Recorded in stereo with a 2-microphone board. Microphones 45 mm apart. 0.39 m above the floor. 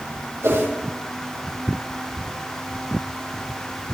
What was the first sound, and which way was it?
A whoosh, 70° right (ahead or behind).